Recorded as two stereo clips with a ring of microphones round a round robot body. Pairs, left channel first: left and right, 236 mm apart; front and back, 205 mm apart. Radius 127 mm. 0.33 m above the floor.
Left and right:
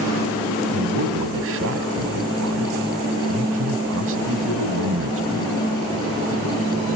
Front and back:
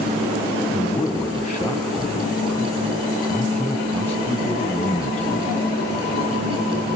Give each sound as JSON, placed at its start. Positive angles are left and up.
{"t": 0.7, "sound": "a man speaking", "azimuth_deg": -80, "distance_m": 2.0}